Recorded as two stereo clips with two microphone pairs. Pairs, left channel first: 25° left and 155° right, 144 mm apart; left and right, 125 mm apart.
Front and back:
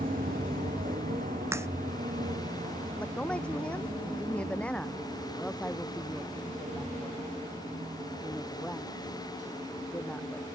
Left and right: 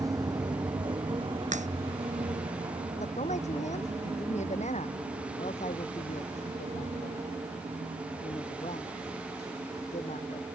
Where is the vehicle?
155° right; by 10.6 s 120° right.